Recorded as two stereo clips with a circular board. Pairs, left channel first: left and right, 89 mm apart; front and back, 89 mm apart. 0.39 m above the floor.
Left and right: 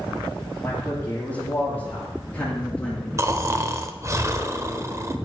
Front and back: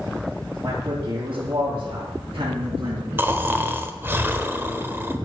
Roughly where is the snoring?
Behind right.